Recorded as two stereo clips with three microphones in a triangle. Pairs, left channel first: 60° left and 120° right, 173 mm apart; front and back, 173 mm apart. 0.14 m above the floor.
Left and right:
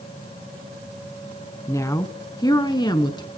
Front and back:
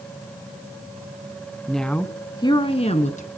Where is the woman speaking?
90° left, 1.1 m; by 3.3 s 5° left, 1.4 m.